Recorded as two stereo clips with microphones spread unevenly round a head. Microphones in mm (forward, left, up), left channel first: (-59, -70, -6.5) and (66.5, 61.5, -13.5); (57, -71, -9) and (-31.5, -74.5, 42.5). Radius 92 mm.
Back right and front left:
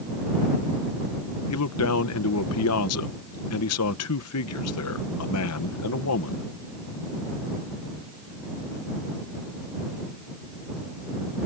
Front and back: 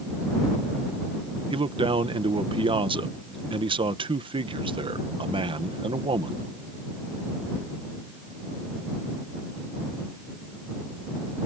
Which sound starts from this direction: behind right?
A man speaking, at 1.5 s.